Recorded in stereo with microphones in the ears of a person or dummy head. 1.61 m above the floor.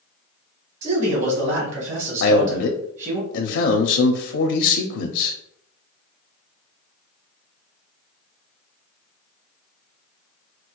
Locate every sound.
0.8 s a man speaking: 40° right (ahead or behind), 1.5 m
2.2 s a man speaking: 65° left (ahead or behind), 0.5 m